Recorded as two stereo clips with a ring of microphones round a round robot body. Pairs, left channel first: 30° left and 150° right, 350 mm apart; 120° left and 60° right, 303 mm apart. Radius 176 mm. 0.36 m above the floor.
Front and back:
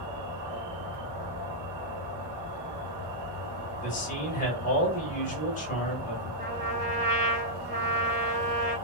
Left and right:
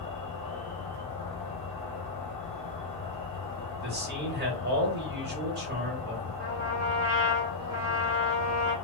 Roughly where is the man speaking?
Ahead right.